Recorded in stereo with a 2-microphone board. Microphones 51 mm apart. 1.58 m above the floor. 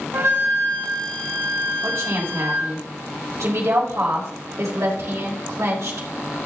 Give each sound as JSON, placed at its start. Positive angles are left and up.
{"t": 0.1, "sound": "a flute", "side_deg": -55, "distance_m": 2.0}
{"t": 1.8, "sound": "a woman speaking", "side_deg": -70, "distance_m": 5.0}